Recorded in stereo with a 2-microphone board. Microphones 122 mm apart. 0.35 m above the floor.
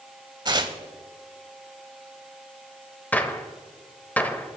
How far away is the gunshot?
About 0.7 m.